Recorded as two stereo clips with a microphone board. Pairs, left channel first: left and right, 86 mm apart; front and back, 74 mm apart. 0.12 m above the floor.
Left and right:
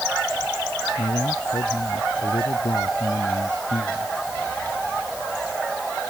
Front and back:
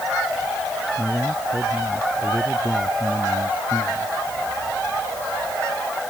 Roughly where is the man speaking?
Left.